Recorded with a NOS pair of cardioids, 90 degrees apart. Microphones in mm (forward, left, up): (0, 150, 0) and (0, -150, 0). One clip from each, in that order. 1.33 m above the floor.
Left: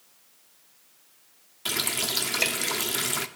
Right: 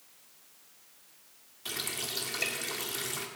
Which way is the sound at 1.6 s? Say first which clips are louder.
Left 8 dB; 55° left.